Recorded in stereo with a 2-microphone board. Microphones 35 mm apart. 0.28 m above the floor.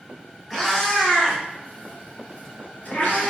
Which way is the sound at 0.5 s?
10° left (ahead or behind).